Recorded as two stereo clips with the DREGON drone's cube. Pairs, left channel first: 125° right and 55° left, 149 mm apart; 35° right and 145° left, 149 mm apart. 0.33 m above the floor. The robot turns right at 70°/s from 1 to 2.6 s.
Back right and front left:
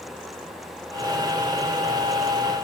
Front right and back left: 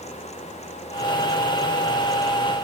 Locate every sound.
Only background noise.